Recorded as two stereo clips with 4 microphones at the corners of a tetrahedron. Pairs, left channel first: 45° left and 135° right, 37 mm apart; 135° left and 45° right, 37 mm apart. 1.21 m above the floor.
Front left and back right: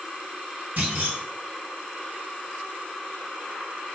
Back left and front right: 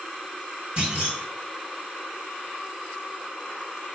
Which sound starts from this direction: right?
A clunk, at 0.8 s.